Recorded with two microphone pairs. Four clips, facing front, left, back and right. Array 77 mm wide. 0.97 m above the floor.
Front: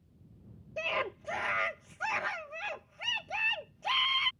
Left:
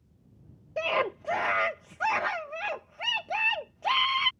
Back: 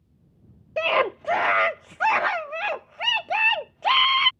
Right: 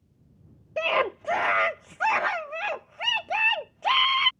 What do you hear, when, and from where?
0.8 s a scream: 160° right